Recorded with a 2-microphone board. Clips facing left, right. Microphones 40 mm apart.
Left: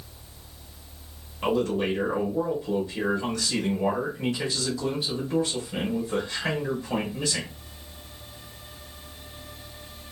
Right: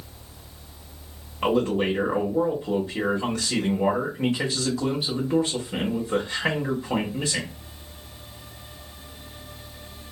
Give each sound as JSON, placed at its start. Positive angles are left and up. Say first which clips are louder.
{"t": 1.4, "sound": "a man speaking", "louder": "right 2 dB", "side_deg": -25, "distance_m": 1.0}